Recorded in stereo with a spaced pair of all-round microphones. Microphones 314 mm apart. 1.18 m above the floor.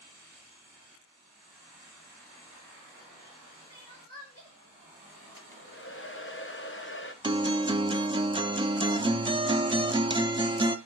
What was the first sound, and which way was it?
Crying, 50° left (ahead or behind).